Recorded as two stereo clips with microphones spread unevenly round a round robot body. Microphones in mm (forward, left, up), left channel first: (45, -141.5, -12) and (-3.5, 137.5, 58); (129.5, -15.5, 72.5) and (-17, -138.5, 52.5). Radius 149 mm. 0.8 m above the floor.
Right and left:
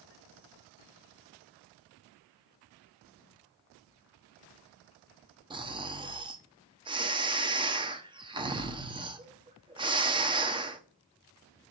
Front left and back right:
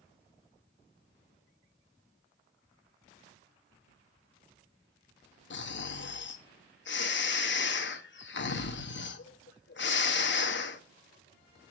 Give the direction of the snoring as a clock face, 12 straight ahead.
11 o'clock.